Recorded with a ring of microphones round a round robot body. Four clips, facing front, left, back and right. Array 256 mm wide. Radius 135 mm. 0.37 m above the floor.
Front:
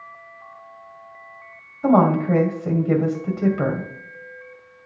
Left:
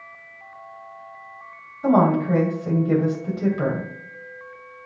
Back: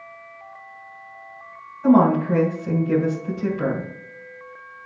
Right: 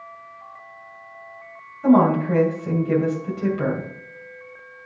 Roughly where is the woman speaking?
Ahead.